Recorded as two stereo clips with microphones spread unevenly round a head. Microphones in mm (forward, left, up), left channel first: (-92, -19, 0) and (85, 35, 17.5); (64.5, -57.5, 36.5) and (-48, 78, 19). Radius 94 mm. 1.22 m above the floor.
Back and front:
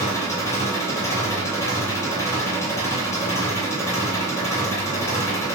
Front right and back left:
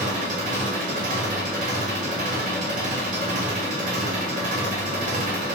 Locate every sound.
0.0 s an engine running: 125° left, 1.1 m